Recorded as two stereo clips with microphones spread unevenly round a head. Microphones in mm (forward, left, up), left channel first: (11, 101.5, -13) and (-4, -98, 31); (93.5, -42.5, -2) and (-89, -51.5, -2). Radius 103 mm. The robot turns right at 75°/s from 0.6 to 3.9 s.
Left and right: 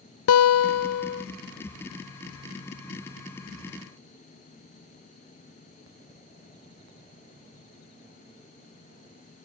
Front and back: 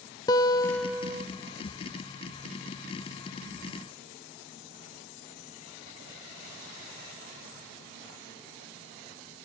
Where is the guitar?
75° left, 0.5 m; by 1.2 s 125° left, 0.5 m.